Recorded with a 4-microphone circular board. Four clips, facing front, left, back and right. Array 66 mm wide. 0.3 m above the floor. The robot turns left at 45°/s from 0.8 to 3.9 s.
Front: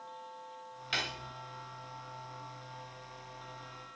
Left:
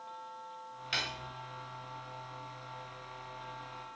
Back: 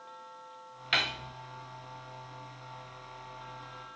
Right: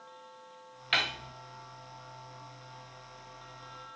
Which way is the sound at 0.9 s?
135° right.